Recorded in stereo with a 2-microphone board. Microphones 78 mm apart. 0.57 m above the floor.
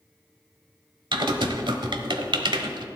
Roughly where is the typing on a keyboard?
Right.